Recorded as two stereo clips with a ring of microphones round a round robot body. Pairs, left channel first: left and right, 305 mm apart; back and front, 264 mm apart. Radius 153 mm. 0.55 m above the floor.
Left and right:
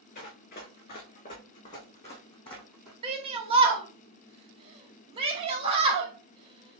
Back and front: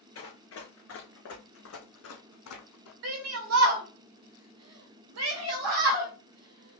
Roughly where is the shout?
Ahead.